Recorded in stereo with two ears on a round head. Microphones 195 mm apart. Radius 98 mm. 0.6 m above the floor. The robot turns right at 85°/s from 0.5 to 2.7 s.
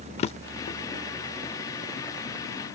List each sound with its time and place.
0.2 s a drawer: 30° left (ahead or behind); by 0.8 s 55° left (ahead or behind)